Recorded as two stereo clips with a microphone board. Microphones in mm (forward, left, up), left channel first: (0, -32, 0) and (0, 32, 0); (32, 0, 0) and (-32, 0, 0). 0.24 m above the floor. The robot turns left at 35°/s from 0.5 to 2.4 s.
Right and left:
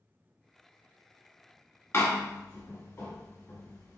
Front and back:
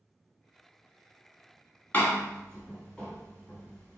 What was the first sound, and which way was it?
A door slam, 50° right.